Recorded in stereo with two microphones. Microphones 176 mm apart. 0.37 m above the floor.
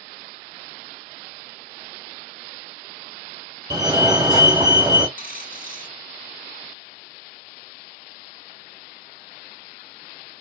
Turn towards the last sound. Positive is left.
turn(degrees=50)  # may be behind; listen again after turning